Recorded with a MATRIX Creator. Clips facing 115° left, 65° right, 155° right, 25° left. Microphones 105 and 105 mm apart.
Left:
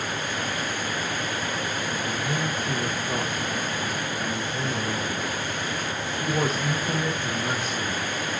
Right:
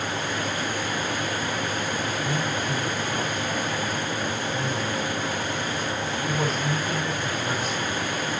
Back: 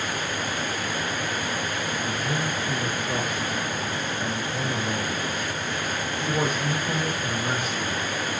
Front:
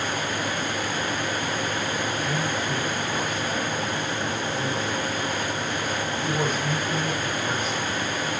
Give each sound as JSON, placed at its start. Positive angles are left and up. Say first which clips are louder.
{"t": 2.0, "sound": "a man speaking", "louder": "right 1 dB, front 1 dB", "azimuth_deg": 130, "distance_m": 2.5}